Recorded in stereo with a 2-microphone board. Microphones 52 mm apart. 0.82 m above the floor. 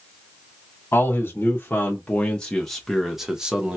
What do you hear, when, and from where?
0.9 s a man speaking: 40° left (ahead or behind), 1.3 m; by 3.8 s 20° right (ahead or behind), 1.0 m